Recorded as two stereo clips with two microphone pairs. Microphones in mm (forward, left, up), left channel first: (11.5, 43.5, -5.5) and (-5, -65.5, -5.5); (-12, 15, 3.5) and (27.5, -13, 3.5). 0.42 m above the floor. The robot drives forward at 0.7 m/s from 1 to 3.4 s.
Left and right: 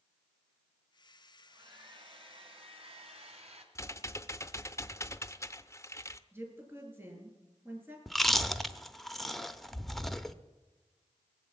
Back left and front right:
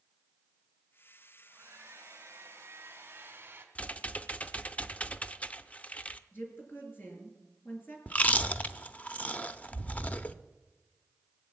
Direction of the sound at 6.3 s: 170° right.